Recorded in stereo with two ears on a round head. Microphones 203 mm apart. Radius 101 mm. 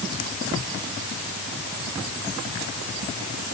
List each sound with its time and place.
Only background noise.